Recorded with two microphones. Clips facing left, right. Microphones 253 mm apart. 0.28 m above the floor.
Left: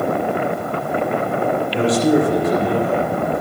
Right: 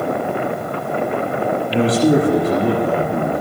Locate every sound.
1.7 s a man speaking: 70° right (ahead or behind), 6.5 m